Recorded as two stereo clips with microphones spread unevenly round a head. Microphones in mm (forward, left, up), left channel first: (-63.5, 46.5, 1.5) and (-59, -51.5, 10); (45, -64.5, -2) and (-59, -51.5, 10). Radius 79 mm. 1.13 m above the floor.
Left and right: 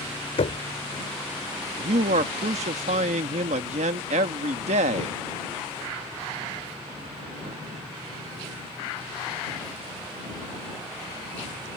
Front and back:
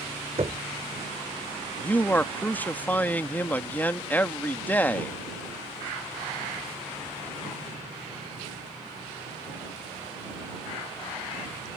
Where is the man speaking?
80° right.